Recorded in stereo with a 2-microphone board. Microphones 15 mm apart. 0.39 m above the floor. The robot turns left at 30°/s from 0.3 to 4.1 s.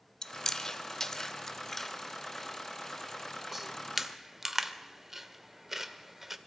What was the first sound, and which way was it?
Chewing, 35° left (ahead or behind).